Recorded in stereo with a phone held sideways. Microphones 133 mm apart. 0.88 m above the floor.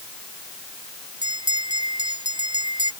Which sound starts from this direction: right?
A bell, at 1.2 s.